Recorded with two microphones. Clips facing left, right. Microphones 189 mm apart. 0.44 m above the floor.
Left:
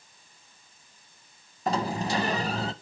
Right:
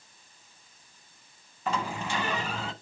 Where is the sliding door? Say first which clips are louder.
Left 4 dB; 40° left (ahead or behind), 0.5 m.